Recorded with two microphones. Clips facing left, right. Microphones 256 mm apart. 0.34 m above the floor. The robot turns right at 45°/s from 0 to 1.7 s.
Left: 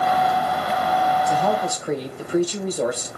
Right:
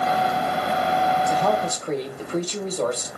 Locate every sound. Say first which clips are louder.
1.3 s a woman speaking: left 1 dB; centre (ahead or behind), 1.1 m; by 3.1 s 10° left (ahead or behind), 1.1 m